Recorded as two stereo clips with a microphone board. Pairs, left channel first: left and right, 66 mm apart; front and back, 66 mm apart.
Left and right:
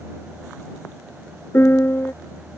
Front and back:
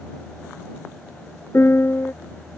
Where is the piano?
40° left.